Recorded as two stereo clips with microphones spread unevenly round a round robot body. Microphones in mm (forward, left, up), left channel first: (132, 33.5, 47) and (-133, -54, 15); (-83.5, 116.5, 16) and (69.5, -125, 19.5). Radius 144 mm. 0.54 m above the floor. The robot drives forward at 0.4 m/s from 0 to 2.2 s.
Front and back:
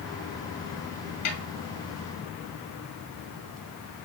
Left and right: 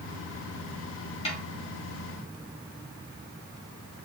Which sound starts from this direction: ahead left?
A snare drum, at 1.2 s.